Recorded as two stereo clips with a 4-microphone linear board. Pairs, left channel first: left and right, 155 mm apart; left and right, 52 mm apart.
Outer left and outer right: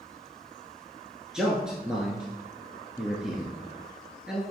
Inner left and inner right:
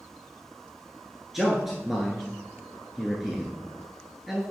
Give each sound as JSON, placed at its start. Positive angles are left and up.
{"t": 1.3, "sound": "a man speaking", "side_deg": -5, "distance_m": 1.3}